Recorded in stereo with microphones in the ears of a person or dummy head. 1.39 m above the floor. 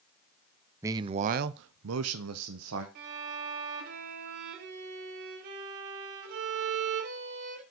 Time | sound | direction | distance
0.8 | a man speaking | 15° right (ahead or behind) | 0.5 m
3.0 | a violin | 45° right (ahead or behind) | 1.4 m